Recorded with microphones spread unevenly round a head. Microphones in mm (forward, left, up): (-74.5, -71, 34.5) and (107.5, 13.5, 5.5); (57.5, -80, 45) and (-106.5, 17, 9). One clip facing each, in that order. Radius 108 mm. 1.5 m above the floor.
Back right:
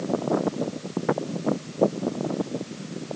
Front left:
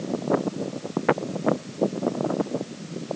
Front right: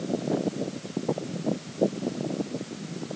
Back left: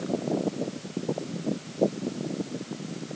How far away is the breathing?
No breathing in this recording.